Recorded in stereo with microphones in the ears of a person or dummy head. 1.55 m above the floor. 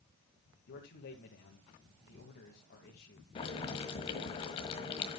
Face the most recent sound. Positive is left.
turn(degrees=25)  # may be behind; listen again after turning